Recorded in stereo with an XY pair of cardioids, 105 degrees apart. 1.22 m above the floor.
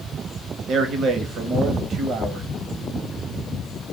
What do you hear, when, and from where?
0.7 s a man speaking: 65° right, 1.0 m